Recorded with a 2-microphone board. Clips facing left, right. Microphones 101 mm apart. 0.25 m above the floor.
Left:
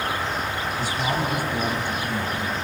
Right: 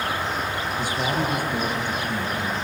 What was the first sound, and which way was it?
A man speaking, 50° right (ahead or behind).